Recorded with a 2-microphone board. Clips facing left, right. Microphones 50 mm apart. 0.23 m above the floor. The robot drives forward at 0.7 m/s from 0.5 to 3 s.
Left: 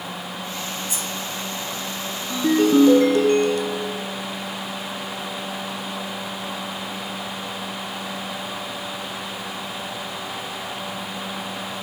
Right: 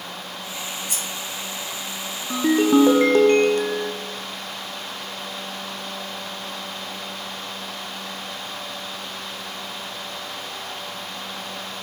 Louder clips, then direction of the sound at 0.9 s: Left 1 dB; 75° right (ahead or behind).